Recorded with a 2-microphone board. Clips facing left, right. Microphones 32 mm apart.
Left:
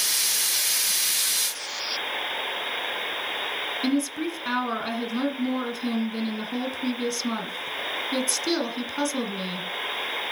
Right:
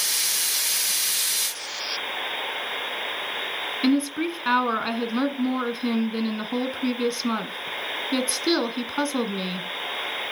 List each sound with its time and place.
3.8 s a woman speaking: 25° right (ahead or behind), 1.5 m